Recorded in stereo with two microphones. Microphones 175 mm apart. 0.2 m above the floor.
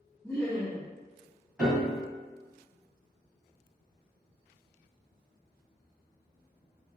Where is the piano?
5° right (ahead or behind), 1.0 m.